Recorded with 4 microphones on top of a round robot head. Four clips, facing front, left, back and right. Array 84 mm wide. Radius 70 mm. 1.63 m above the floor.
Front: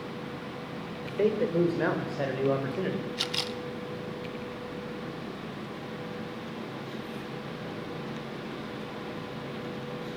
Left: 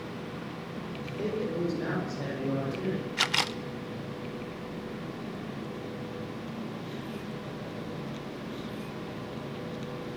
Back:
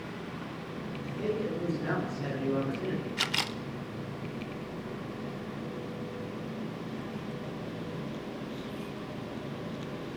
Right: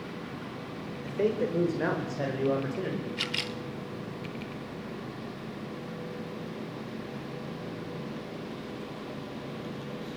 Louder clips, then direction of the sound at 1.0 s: Right 5 dB, front 6 dB; 30° right.